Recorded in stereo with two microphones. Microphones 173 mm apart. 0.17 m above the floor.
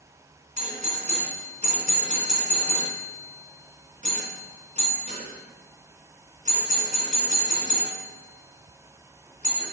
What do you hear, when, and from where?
0.6 s a doorbell: 45° right (ahead or behind), 2.5 m